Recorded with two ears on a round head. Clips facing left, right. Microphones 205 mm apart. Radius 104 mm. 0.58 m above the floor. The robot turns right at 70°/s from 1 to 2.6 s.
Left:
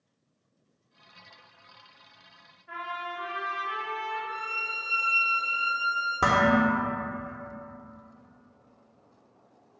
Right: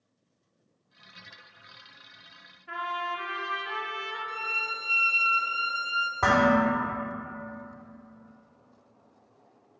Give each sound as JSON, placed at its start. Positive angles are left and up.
{"t": 2.7, "sound": "a trumpet", "side_deg": -60, "distance_m": 1.0}
{"t": 4.3, "sound": "a violin", "side_deg": -15, "distance_m": 0.6}
{"t": 6.2, "sound": "dishes clattering", "side_deg": 40, "distance_m": 0.9}